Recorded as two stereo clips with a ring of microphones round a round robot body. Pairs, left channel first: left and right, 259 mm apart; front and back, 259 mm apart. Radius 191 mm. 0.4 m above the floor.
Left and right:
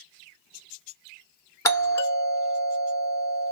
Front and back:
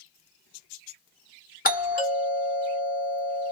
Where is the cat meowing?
I don't hear a cat meowing.